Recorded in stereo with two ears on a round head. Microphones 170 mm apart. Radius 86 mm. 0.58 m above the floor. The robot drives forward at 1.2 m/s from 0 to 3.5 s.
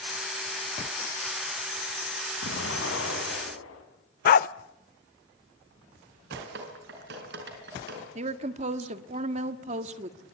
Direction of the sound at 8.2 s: 35° right (ahead or behind).